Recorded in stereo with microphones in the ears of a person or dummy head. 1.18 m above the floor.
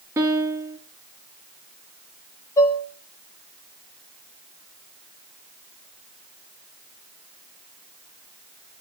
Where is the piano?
10° right (ahead or behind), 0.6 m.